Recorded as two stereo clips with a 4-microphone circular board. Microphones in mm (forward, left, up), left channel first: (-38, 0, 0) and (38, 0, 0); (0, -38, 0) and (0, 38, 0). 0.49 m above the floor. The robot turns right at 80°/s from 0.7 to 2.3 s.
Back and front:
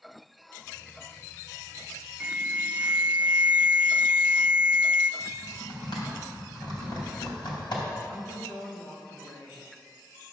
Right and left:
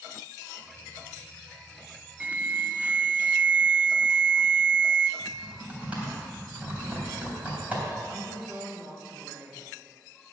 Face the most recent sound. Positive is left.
turn(degrees=155)